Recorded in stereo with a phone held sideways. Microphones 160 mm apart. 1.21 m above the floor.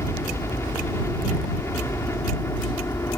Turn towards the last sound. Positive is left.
turn(degrees=15)  # may be behind; listen again after turning